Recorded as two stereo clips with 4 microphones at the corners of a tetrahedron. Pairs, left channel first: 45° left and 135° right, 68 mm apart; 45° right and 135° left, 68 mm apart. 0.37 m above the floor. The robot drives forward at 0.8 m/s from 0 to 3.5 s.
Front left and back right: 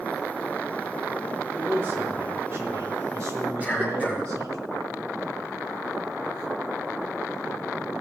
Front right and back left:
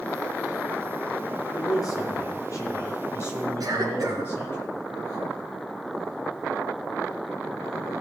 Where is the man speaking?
75° right, 4 m; by 4.6 s 100° right, 4 m.